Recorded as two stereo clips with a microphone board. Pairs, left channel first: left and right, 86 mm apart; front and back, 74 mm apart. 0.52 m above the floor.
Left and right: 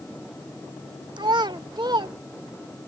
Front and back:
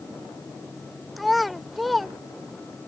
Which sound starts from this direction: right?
A child speaking, at 1.2 s.